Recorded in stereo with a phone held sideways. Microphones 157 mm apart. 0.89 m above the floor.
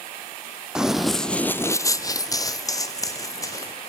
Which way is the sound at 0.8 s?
5° right (ahead or behind).